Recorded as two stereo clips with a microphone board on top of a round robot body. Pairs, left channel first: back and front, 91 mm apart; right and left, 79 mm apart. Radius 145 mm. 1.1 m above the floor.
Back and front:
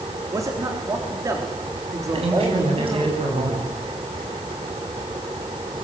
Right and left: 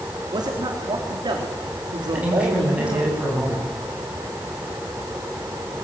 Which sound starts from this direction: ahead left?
A man speaking, at 0.3 s.